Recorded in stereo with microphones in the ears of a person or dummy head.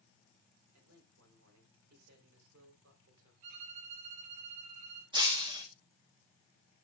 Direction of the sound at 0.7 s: 90° right.